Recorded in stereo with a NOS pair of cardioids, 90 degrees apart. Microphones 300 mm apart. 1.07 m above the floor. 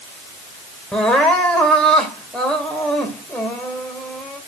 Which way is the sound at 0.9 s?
5° left.